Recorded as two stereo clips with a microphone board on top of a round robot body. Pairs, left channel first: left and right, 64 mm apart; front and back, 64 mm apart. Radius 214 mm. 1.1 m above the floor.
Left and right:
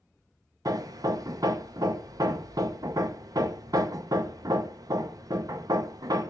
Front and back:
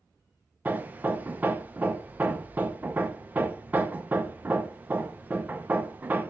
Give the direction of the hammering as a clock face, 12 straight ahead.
4 o'clock.